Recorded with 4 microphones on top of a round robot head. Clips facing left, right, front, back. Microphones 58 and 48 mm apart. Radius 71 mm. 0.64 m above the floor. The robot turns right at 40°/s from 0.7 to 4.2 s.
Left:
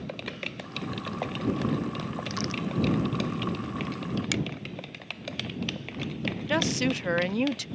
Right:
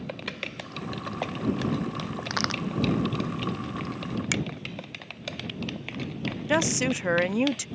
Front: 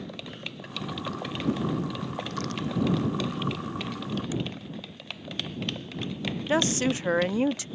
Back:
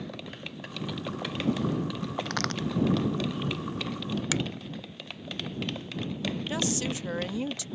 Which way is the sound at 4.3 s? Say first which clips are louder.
Right 2 dB, back 3 dB; 160° right.